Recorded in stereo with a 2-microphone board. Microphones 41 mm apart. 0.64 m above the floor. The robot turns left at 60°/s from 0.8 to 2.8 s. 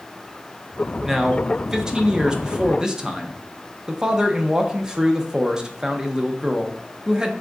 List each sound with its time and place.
1.0 s a man speaking: 5° right (ahead or behind), 0.5 m; by 7.3 s 15° right (ahead or behind), 0.5 m